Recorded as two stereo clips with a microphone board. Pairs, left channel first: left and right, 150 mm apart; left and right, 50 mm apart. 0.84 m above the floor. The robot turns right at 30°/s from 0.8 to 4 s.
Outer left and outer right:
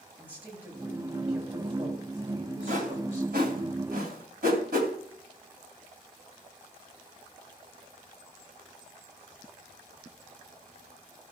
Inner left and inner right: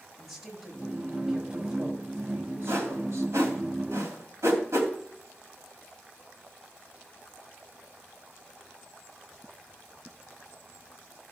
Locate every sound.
0.2 s a woman speaking: 170° left, 6 m; by 3.3 s 115° right, 6 m
2.7 s a whoosh: 55° right (ahead or behind), 2.5 m; by 4.9 s 85° right, 2.5 m